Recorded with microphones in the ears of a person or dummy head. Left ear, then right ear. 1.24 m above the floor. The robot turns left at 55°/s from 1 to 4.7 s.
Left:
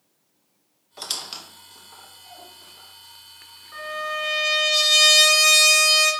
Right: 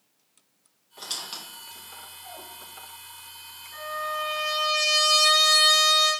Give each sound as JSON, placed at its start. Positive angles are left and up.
{"t": 1.0, "sound": "a squeak", "side_deg": 30, "distance_m": 0.6}
{"t": 3.7, "sound": "a trumpet", "azimuth_deg": 100, "distance_m": 1.7}